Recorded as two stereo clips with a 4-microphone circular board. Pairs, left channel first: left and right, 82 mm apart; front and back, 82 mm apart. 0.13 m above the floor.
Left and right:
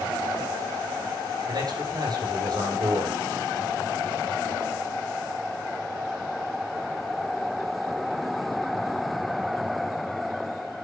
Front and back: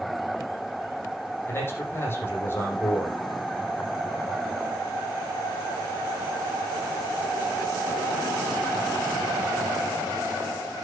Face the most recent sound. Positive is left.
turn(degrees=-60)